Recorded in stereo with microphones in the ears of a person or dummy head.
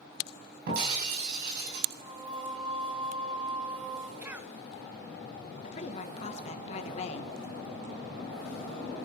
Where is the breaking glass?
55° right (ahead or behind), 4 m.